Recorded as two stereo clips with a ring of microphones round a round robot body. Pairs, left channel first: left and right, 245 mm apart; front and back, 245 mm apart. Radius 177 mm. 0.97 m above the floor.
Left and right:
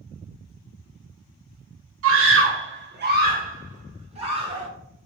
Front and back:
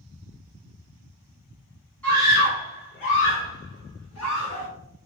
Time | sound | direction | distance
2.0 | a scream | 85° right | 0.7 m